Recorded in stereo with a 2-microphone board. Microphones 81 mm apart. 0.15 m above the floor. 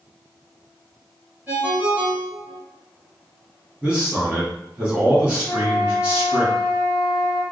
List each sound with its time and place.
1.5 s a ringtone: 20° right (ahead or behind), 1.3 m
3.8 s a man speaking: 15° right (ahead or behind), 1.5 m
5.5 s a flute: 15° left (ahead or behind), 0.9 m